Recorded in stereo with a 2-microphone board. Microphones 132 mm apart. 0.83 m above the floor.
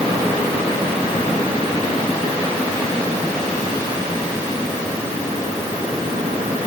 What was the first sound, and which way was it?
Only background noise.